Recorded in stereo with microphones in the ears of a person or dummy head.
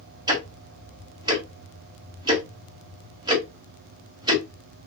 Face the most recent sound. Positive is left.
turn(degrees=-25)  # may be behind; listen again after turning